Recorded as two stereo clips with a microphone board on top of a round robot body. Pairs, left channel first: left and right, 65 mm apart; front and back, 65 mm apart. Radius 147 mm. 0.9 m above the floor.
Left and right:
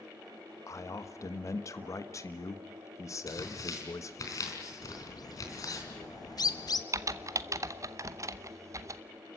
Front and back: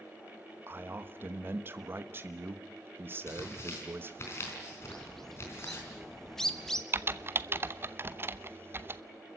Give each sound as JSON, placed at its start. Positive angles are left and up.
{"t": 0.7, "sound": "a man speaking", "azimuth_deg": 125, "distance_m": 1.4}
{"t": 3.3, "sound": "tearing paper", "azimuth_deg": 55, "distance_m": 4.0}
{"t": 4.8, "sound": "a bird", "azimuth_deg": 85, "distance_m": 1.3}
{"t": 6.9, "sound": "typing on a keyboard", "azimuth_deg": -125, "distance_m": 0.9}